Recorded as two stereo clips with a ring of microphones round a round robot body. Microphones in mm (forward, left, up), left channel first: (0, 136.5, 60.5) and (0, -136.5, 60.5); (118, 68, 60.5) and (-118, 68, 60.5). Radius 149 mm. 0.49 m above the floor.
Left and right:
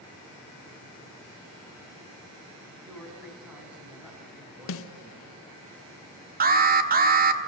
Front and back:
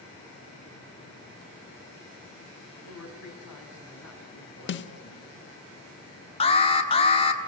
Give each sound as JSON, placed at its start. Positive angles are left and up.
{"t": 2.9, "sound": "a man speaking", "azimuth_deg": -5, "distance_m": 4.5}
{"t": 4.7, "sound": "a snare drum", "azimuth_deg": 45, "distance_m": 0.6}
{"t": 6.4, "sound": "an alarm", "azimuth_deg": -55, "distance_m": 1.5}